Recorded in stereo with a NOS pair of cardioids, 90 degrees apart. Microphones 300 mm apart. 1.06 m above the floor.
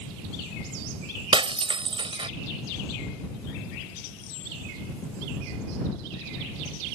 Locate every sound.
1.3 s breaking glass: 15° right